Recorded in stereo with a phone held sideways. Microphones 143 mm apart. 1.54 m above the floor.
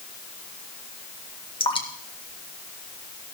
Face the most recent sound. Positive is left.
turn(degrees=35)  # may be behind; listen again after turning